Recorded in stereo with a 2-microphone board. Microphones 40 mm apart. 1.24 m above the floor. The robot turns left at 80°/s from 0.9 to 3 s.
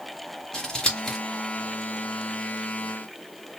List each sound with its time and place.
0.5 s scissors: 20° left (ahead or behind), 1.6 m; by 1.2 s centre (ahead or behind), 1.6 m